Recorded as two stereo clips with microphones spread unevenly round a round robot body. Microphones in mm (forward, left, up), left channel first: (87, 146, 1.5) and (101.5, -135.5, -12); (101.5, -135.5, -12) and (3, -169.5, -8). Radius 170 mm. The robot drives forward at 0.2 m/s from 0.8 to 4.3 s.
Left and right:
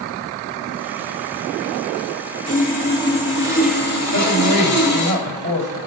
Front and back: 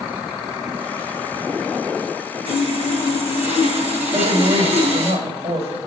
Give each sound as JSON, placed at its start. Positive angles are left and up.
{"t": 2.5, "sound": "sawing", "azimuth_deg": -165, "distance_m": 2.5}
{"t": 4.1, "sound": "a woman speaking", "azimuth_deg": -135, "distance_m": 3.0}